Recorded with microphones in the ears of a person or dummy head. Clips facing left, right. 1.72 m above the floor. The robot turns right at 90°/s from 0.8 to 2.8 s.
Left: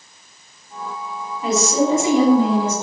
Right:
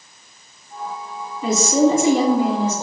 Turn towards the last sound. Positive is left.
turn(degrees=25)